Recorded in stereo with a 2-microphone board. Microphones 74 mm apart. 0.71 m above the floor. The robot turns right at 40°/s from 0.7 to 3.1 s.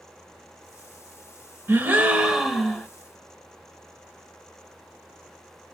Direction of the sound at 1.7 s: 35° right.